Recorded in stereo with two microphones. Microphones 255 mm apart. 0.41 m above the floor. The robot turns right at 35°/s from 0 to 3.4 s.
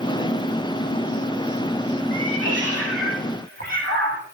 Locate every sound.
2.1 s a cat meowing: 95° right, 5 m; by 4.2 s 50° right, 5 m